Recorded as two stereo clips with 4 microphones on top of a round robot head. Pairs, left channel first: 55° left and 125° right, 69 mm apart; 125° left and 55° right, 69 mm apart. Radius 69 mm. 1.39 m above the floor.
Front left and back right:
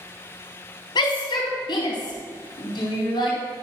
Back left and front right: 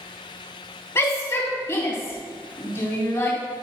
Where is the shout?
70° left, 3.5 m.